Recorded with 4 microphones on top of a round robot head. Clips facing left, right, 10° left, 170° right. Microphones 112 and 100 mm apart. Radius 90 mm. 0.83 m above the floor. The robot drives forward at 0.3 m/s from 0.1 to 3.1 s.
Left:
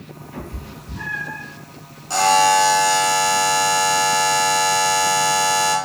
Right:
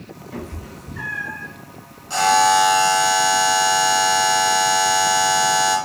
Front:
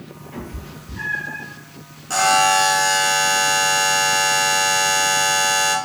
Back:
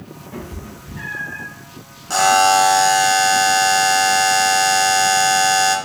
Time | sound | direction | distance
0.3 | a cat meowing | 105° right | 1.3 m
2.1 | a buzzer | 130° left | 0.7 m